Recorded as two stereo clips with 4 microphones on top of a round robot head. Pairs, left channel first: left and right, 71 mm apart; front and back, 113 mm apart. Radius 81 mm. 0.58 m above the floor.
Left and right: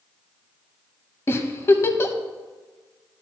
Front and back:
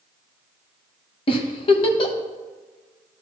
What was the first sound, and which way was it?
A giggle, 35° left.